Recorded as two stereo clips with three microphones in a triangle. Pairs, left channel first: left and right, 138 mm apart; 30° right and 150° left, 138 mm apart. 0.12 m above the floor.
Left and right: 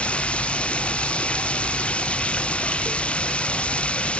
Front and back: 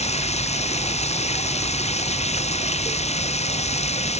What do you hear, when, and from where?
0.0 s running water: 10° left